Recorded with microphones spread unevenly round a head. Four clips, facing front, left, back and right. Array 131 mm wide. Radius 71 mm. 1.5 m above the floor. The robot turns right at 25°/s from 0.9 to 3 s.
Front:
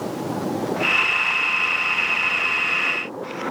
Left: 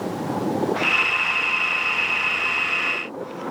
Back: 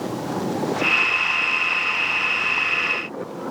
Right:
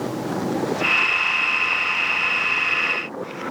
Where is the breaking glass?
No breaking glass in this recording.